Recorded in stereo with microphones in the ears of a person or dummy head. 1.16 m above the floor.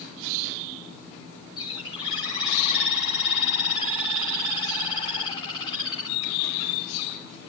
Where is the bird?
30° left (ahead or behind), 4 m.